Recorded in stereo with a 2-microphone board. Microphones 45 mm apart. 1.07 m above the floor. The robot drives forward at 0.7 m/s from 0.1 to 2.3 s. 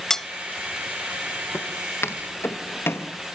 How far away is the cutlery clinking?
About 0.6 m.